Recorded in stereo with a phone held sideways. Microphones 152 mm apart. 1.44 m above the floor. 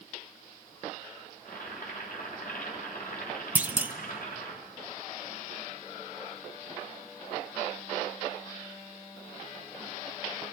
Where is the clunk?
10° right (ahead or behind), 0.7 m.